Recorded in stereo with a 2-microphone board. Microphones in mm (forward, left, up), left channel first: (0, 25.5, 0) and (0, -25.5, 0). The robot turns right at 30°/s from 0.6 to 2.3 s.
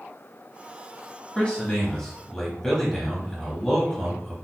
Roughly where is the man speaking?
Centre.